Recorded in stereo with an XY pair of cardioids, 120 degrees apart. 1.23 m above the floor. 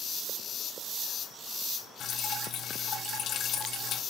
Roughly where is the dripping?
Ahead left.